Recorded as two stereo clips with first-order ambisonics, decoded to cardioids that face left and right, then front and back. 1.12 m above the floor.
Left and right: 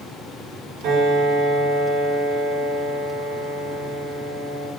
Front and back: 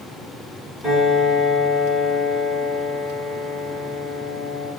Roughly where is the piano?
Right.